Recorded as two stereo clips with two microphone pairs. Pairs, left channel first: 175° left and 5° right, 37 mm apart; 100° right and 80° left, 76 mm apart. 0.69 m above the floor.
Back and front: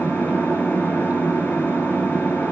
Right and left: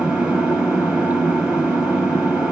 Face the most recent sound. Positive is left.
turn(degrees=160)